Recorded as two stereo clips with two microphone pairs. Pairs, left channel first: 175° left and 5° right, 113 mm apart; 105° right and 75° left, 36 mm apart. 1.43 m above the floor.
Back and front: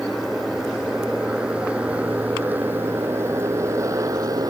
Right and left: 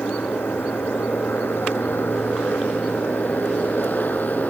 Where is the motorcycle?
95° right; by 4.5 s 65° right.